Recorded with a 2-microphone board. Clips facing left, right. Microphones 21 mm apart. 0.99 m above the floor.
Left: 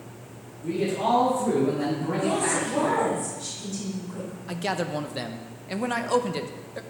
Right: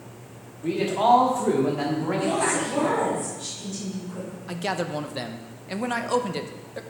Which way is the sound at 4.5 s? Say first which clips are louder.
Even; 5° right (ahead or behind).